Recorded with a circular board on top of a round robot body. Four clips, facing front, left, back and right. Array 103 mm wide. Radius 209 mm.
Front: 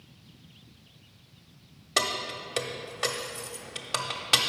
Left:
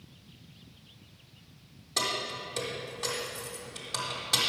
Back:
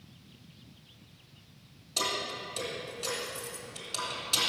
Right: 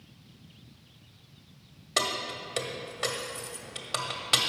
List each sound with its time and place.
2.0 s keys jangling: 30° right, 0.9 m